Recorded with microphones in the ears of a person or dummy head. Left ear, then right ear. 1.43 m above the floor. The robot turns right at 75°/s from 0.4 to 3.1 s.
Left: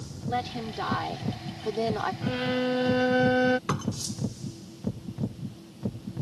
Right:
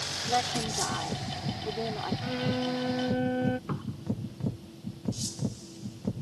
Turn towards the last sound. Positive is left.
turn(degrees=80)